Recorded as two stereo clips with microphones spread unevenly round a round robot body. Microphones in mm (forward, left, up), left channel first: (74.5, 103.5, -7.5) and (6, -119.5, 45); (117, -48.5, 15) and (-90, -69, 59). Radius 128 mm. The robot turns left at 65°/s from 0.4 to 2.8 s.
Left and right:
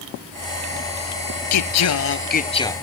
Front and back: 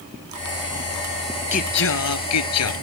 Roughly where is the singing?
Left.